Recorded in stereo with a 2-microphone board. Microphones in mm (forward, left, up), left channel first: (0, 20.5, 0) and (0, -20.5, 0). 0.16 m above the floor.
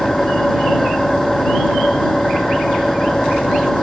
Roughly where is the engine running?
Centre.